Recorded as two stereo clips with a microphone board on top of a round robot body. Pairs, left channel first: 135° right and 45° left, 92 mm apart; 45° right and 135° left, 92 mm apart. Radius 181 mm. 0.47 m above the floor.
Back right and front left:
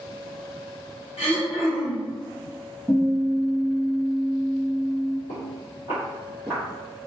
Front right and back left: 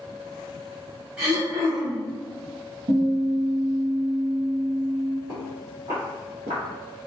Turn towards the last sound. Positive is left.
turn(degrees=110)